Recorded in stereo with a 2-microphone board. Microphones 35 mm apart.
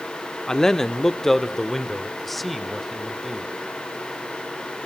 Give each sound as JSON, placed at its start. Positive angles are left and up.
{"t": 0.5, "sound": "a man speaking", "side_deg": 20, "distance_m": 0.8}